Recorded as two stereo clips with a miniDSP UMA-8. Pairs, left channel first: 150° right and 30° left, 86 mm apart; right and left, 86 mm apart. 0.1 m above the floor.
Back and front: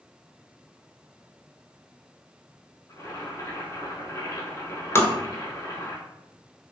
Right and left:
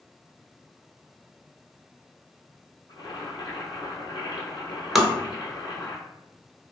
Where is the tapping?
175° left, 0.5 m.